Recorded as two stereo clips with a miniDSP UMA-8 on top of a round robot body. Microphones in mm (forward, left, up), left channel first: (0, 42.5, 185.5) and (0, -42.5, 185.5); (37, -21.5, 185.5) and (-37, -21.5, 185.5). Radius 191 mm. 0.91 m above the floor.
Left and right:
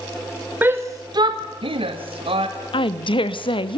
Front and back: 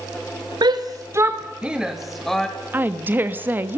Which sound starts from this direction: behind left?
A woman speaking, at 2.7 s.